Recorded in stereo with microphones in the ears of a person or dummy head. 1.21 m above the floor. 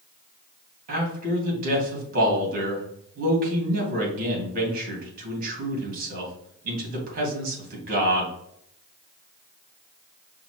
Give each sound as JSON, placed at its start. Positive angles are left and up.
{"t": 0.9, "sound": "a man speaking", "side_deg": -50, "distance_m": 2.0}